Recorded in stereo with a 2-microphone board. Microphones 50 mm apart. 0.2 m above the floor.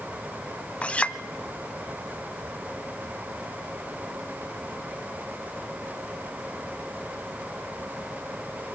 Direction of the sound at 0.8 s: 25° left (ahead or behind).